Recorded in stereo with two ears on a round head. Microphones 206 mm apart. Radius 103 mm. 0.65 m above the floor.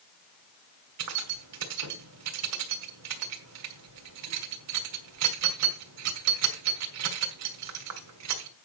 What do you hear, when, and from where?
1.0 s keys jangling: 85° right, 2.0 m